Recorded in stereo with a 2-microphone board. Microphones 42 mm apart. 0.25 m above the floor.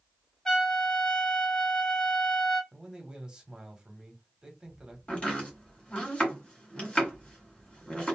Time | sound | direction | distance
0.5 | a trumpet | 10° left (ahead or behind) | 0.9 m
2.7 | a man speaking | 20° right (ahead or behind) | 1.0 m
5.1 | chopping | 25° left (ahead or behind) | 1.5 m